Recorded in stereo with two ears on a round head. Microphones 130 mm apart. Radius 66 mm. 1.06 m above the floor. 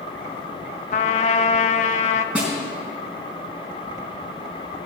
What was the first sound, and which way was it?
A trumpet, 50° left (ahead or behind).